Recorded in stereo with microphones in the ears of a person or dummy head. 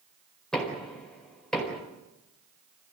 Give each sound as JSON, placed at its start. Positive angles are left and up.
{"t": 0.5, "sound": "knocking", "side_deg": 5, "distance_m": 4.5}